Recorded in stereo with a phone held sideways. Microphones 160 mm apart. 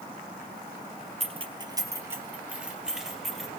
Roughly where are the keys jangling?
Right.